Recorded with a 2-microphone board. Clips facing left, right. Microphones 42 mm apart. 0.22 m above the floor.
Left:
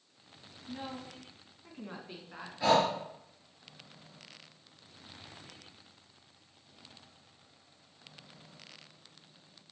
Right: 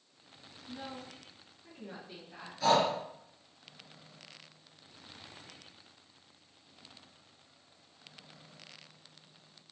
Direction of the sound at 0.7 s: 35° left (ahead or behind).